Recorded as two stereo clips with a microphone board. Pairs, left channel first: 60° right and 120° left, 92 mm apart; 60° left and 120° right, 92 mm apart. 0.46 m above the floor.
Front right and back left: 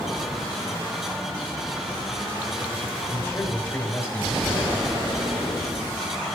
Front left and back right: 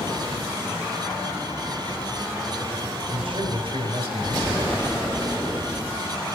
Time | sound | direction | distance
3.1 | a man speaking | 125° right | 2.5 m